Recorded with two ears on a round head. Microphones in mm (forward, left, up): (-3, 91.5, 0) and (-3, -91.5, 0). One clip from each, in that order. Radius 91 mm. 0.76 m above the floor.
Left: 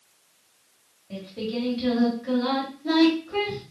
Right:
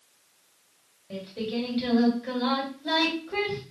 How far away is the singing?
About 2.5 m.